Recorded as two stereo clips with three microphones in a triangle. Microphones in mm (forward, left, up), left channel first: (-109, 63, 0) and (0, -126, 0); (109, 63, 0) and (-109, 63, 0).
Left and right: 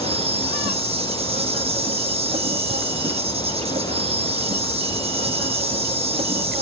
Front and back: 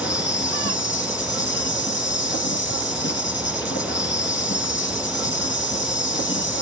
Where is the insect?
5° right, 1.8 m.